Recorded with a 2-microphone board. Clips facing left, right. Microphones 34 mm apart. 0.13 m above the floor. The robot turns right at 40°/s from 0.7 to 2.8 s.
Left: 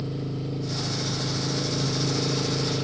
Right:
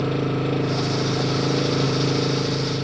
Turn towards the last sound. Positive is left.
turn(degrees=-10)